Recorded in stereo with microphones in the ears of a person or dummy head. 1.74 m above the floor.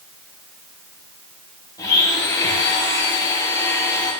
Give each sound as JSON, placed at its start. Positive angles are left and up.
{"t": 1.8, "sound": "a blender", "side_deg": 15, "distance_m": 1.9}